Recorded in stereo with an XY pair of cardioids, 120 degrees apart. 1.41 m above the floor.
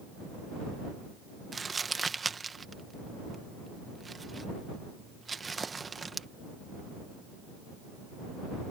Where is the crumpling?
25° right.